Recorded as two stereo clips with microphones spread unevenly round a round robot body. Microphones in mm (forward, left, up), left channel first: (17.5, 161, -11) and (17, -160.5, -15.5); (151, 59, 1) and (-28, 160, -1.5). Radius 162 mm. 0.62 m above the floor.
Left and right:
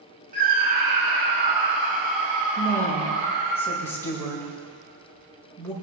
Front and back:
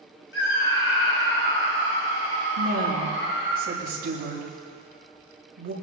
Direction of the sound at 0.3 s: 30° right.